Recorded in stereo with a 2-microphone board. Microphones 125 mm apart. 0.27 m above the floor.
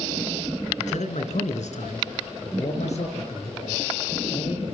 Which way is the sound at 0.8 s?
70° left (ahead or behind).